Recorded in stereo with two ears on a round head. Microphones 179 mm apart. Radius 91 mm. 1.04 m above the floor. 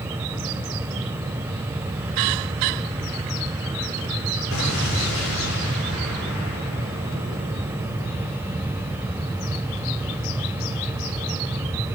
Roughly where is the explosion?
Left.